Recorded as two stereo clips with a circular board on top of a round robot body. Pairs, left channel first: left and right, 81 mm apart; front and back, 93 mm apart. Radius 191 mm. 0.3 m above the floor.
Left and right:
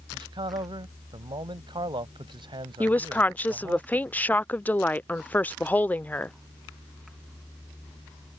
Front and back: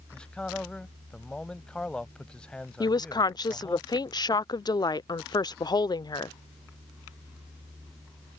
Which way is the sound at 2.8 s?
25° left.